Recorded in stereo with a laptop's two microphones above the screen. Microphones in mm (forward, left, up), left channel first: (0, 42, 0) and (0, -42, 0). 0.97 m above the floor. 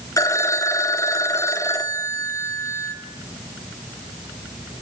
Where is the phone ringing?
40° left (ahead or behind), 1.2 m.